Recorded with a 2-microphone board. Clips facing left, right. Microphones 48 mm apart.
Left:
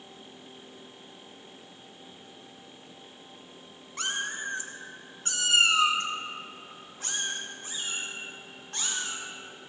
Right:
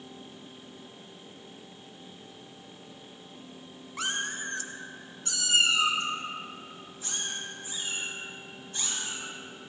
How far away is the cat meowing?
About 0.7 m.